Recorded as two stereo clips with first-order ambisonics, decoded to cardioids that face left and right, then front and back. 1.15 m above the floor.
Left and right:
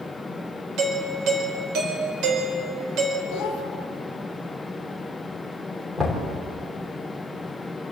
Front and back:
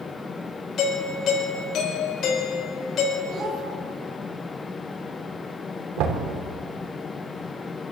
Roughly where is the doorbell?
Ahead right.